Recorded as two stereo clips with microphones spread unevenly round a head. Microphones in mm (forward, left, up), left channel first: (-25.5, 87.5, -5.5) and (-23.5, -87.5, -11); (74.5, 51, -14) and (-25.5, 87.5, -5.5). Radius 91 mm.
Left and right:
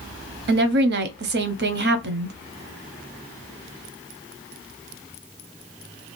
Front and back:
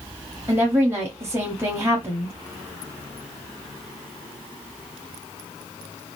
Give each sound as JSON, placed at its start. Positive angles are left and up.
{"t": 0.5, "sound": "a woman speaking", "azimuth_deg": -120, "distance_m": 0.5}